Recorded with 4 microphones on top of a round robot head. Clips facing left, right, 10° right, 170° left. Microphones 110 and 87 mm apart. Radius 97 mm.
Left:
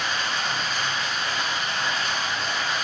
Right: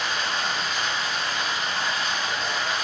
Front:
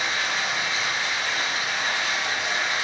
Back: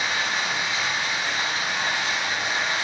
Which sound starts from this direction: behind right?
Running water, at 0.0 s.